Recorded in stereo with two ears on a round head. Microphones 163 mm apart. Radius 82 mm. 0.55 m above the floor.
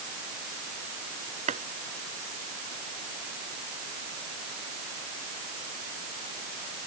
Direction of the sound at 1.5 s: 40° right (ahead or behind).